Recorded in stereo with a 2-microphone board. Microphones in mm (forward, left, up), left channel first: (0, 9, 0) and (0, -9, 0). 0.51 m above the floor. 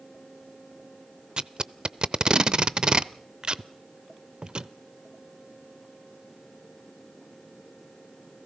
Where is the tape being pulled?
45° right (ahead or behind), 0.6 m.